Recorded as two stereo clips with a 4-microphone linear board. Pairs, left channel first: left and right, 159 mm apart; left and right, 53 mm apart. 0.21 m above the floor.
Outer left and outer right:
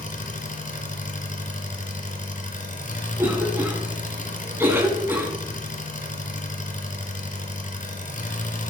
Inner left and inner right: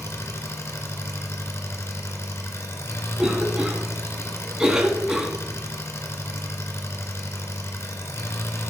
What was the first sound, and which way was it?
An engine running, 50° left (ahead or behind).